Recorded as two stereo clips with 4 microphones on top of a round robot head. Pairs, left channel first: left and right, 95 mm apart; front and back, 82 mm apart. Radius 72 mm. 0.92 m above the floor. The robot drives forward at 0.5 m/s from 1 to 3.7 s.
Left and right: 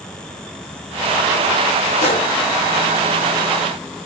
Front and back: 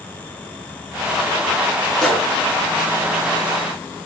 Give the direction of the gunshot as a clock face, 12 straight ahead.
9 o'clock.